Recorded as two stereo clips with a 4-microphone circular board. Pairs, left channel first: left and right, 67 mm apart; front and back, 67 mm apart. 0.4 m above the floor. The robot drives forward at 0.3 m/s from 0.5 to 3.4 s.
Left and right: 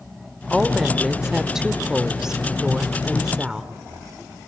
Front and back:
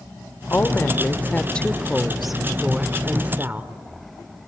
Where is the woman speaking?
10° right, 0.9 m; by 3.7 s 160° right, 0.8 m.